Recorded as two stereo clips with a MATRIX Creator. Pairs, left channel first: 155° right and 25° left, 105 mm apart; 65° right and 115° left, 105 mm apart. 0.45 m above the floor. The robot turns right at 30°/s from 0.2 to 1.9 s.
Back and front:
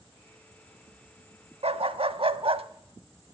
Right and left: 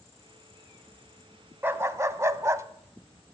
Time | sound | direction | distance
1.6 | a dog barking | 40° left | 0.7 m